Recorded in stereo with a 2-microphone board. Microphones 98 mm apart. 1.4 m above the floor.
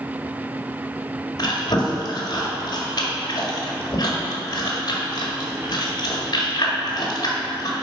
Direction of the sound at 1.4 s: 45° left (ahead or behind).